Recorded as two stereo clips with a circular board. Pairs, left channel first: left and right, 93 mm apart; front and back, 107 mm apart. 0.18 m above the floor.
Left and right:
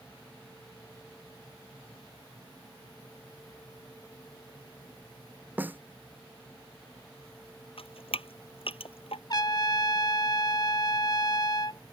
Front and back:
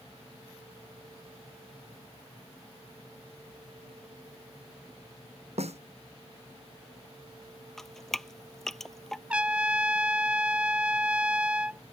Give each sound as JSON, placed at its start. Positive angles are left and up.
{"t": 5.6, "sound": "a snare drum", "azimuth_deg": -160}
{"t": 7.8, "sound": "dripping", "azimuth_deg": 85}
{"t": 9.3, "sound": "a trumpet", "azimuth_deg": 105}